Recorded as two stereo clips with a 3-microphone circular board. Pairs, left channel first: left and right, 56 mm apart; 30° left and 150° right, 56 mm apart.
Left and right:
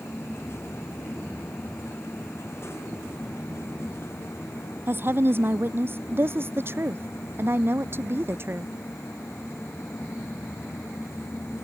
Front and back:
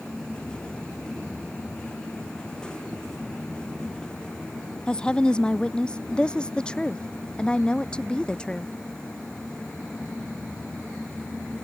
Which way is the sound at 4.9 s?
45° right.